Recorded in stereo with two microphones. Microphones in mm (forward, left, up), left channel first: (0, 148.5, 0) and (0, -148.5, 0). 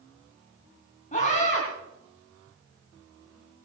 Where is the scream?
25° left (ahead or behind), 3.5 m.